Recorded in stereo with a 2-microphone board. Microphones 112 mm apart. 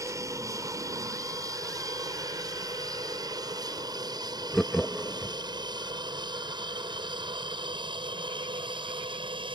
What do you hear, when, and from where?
0.0 s an aircraft: 30° right (ahead or behind); by 9.6 s 45° right (ahead or behind)
4.5 s laughter: 5° left (ahead or behind)